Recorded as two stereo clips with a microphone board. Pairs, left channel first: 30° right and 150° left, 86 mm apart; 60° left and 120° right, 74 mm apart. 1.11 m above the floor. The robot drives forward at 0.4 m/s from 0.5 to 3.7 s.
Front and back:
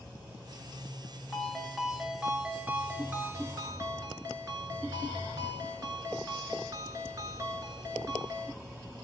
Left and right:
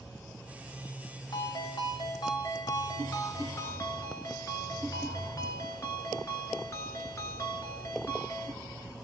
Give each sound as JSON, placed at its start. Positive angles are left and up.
{"t": 1.3, "sound": "a ringtone", "azimuth_deg": 55, "distance_m": 1.3}